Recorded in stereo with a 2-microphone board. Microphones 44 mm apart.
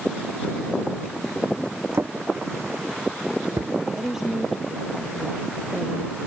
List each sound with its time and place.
1.9 s a drawer: 85° right
3.9 s a woman speaking: 10° right (ahead or behind)